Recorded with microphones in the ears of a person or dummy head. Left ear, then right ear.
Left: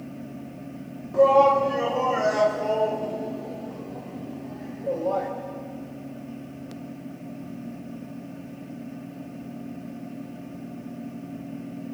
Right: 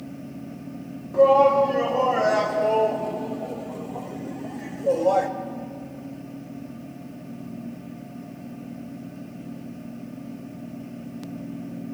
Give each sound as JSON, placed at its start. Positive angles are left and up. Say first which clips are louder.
{"t": 1.1, "sound": "a shout", "louder": "right 1 dB", "side_deg": 5, "distance_m": 2.0}